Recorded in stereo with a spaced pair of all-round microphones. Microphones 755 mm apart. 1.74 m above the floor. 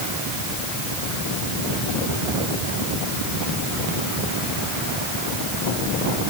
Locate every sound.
Only background noise.